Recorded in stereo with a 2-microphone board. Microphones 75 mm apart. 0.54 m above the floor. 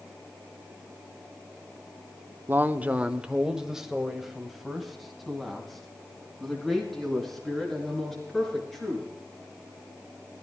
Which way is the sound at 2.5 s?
30° right (ahead or behind).